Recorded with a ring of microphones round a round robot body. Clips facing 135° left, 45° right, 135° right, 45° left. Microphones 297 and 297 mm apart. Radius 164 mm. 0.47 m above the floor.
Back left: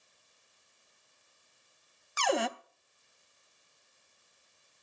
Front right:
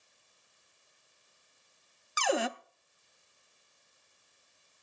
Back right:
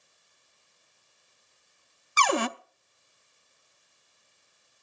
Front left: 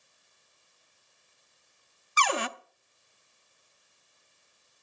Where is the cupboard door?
135° right, 0.7 m.